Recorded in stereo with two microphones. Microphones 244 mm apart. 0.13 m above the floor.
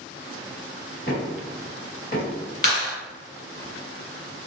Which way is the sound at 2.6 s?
35° left (ahead or behind).